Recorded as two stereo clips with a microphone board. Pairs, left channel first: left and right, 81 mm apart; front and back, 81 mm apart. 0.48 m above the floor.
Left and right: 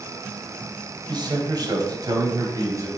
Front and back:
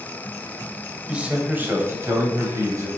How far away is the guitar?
I don't hear a guitar.